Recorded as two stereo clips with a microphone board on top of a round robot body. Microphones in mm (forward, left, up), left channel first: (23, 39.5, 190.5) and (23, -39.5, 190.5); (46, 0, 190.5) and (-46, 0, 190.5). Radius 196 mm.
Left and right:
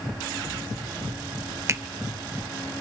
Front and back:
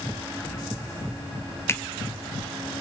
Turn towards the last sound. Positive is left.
turn(degrees=-50)